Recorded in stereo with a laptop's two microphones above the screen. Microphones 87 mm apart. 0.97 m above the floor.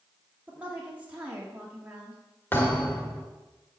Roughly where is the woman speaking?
Centre.